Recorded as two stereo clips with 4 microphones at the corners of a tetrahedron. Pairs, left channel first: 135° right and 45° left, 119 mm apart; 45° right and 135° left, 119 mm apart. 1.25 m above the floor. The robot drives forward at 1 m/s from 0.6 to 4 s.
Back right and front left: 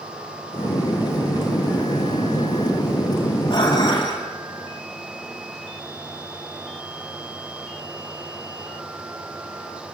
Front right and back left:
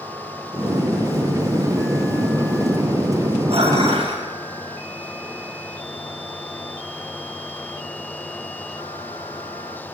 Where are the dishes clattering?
170° left, 5.5 m; by 4.2 s 175° left, 6 m.